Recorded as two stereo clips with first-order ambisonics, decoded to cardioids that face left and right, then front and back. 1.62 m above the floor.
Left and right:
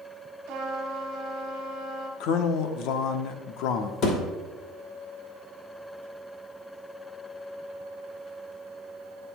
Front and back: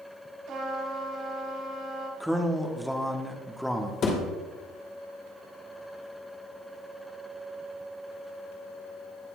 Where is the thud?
50° left, 2 m.